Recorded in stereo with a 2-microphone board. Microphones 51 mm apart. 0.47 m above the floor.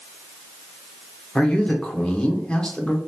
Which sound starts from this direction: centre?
A man speaking, at 1.4 s.